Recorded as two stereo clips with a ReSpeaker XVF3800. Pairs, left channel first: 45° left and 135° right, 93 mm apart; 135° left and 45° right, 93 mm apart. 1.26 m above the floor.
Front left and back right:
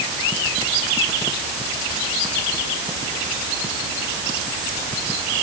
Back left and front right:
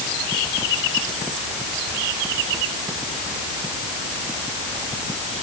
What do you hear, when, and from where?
Only background noise.